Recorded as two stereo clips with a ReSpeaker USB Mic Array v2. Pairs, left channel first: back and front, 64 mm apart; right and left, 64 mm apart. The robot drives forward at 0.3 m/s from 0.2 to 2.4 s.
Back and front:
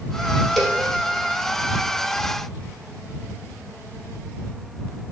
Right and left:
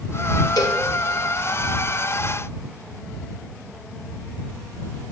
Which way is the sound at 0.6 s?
90° right.